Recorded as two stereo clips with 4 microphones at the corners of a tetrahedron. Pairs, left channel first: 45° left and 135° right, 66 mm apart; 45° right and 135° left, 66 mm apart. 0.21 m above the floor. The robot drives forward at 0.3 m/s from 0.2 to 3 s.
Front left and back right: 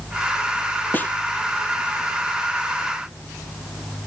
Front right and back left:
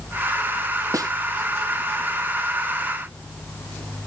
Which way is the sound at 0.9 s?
105° left.